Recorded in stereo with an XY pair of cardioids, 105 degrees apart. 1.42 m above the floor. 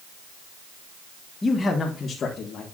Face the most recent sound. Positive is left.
turn(degrees=50)